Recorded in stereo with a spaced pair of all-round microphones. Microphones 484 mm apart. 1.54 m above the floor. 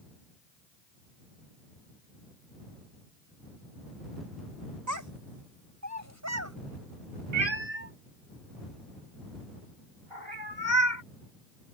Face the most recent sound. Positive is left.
turn(degrees=-65)  # may be behind; listen again after turning